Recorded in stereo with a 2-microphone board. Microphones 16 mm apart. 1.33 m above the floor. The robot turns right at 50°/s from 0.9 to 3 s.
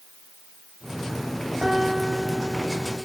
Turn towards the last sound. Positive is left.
turn(degrees=0)